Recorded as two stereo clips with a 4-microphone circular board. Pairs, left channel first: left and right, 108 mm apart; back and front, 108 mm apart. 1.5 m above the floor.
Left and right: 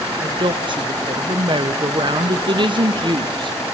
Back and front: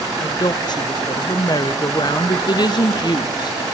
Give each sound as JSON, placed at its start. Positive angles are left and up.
{"t": 0.2, "sound": "a woman speaking", "azimuth_deg": -130, "distance_m": 0.9}